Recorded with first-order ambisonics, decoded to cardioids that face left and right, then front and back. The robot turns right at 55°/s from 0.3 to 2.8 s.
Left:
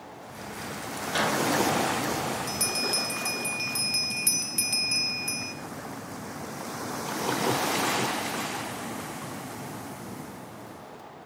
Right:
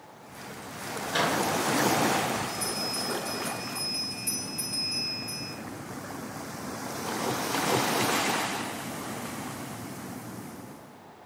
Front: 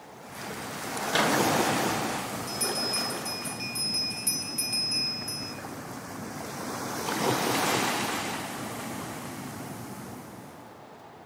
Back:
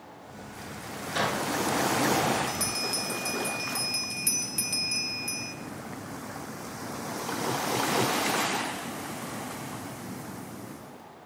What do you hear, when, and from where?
1.1 s a microwave: 5° left, 1.2 m; by 1.4 s 25° left, 1.2 m
2.5 s a bell: 95° left, 0.5 m; by 5.5 s 115° left, 0.5 m